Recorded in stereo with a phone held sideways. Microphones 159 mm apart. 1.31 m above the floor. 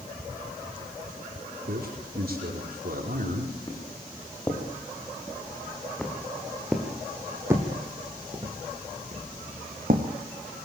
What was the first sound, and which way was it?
A man speaking, 75° right (ahead or behind).